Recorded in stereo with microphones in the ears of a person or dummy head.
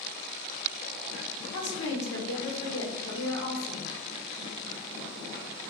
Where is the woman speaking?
75° left (ahead or behind), 1.1 m.